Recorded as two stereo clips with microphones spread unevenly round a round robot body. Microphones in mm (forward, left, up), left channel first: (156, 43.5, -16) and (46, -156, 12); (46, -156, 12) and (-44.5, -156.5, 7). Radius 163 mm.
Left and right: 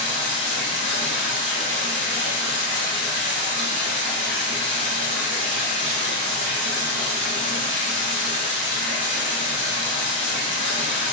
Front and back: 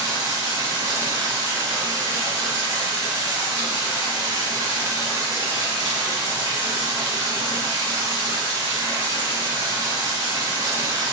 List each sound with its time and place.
0.0 s running water: 165° right, 1.5 m